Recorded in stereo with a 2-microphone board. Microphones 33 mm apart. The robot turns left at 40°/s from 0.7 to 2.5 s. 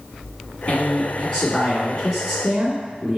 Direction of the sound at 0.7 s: 70° left.